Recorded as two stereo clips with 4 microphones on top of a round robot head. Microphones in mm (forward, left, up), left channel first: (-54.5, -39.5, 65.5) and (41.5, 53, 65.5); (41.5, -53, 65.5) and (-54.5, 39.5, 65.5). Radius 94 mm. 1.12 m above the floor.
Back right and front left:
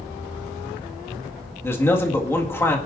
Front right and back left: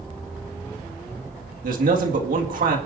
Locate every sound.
1.6 s a man speaking: 150° left, 1.9 m